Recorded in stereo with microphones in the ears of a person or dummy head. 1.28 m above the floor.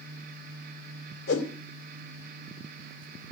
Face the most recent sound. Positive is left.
turn(degrees=80)